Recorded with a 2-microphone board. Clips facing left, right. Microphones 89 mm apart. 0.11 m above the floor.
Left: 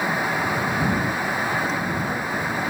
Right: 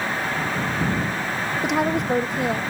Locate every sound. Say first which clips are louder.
1.6 s a woman speaking: right 4 dB; 70° right (ahead or behind)